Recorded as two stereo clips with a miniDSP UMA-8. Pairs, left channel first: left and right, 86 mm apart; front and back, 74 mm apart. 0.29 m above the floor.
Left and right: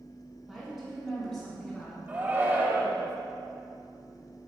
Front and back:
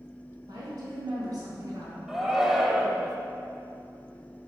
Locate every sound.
0.5 s a woman speaking: 175° right, 2 m; by 2.0 s 165° left, 2.5 m
2.1 s a shout: 100° right, 1.0 m